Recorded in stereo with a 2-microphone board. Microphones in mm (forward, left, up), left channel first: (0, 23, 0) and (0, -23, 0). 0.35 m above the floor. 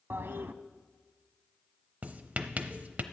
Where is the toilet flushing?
60° right (ahead or behind), 0.6 m.